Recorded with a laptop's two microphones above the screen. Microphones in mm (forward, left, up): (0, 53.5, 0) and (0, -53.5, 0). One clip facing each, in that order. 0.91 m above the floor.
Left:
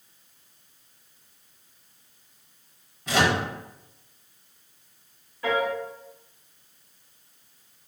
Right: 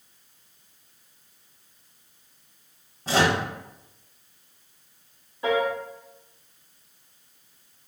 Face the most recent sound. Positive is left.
turn(degrees=-25)  # may be behind; listen again after turning